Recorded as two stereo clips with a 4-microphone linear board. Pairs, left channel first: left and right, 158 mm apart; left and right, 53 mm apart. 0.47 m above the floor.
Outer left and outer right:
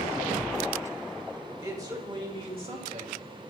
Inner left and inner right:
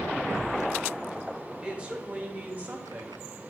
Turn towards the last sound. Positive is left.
turn(degrees=-45)  # may be behind; listen again after turning